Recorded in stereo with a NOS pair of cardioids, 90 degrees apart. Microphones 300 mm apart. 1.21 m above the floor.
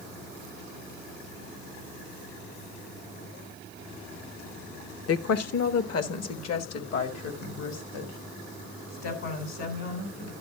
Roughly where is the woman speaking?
Ahead left.